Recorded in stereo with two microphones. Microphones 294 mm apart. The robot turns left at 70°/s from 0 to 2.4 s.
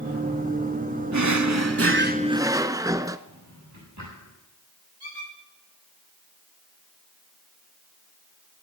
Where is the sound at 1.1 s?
80° right, 0.6 m; by 3.2 s 165° right, 0.6 m.